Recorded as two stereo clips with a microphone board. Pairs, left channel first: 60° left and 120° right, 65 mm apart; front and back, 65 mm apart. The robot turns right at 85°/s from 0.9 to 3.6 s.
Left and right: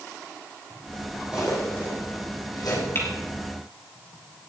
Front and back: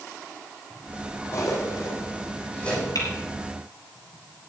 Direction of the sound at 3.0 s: 10° left.